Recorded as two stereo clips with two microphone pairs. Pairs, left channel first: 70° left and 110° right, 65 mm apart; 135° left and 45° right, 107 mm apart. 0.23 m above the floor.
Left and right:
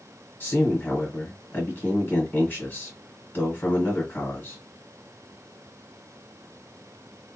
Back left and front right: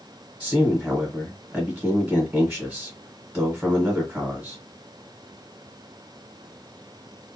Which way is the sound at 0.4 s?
30° left.